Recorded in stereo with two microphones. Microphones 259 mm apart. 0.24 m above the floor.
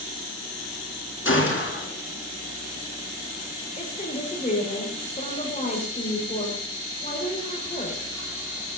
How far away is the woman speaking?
About 6 m.